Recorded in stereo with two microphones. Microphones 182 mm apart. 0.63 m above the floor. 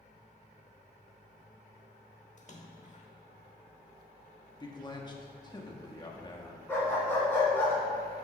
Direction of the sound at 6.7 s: 10° left (ahead or behind).